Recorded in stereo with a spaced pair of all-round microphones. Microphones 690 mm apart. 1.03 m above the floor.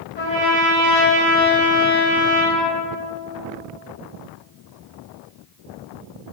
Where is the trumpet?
85° left, 3.5 m.